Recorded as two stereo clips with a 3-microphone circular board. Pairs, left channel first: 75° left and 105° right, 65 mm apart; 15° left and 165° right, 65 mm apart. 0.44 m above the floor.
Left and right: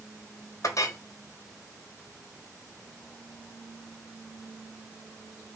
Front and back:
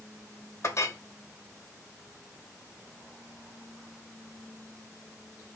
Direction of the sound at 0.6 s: 50° left.